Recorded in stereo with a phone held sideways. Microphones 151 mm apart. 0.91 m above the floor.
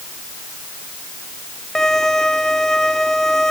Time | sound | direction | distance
1.8 | a violin | 5° left (ahead or behind) | ?